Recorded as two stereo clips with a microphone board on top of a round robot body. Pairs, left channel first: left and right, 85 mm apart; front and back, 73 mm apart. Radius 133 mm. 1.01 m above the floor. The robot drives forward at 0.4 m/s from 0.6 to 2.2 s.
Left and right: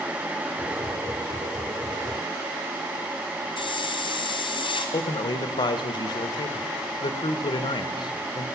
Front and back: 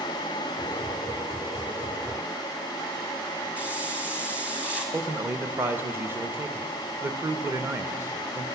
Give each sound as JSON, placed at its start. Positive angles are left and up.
{"t": 3.6, "sound": "a hiss", "azimuth_deg": 105, "distance_m": 1.3}
{"t": 4.9, "sound": "a man speaking", "azimuth_deg": 120, "distance_m": 0.7}